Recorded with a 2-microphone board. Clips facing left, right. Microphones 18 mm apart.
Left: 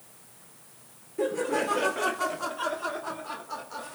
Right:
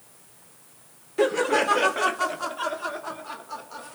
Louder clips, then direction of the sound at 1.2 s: Right 6 dB; 50° right (ahead or behind).